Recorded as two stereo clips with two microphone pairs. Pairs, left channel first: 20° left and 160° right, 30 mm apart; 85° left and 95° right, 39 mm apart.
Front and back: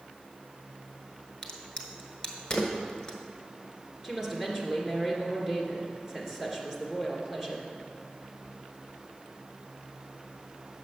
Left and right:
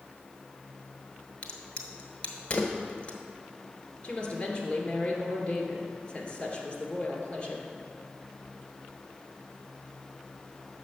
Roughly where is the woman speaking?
Behind left.